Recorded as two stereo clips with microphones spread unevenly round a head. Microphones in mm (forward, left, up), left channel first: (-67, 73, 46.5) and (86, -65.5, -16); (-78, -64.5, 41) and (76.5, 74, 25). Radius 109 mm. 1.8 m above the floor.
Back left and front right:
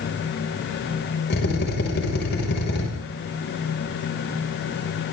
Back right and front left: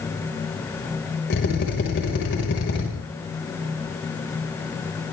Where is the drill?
Straight behind, 7 m.